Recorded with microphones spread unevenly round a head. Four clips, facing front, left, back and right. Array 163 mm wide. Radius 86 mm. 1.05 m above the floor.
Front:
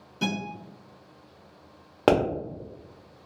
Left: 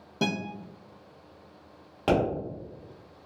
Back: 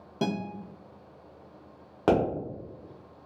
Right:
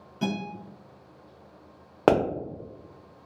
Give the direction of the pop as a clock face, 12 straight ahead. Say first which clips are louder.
Right 4 dB, front 3 dB; 3 o'clock.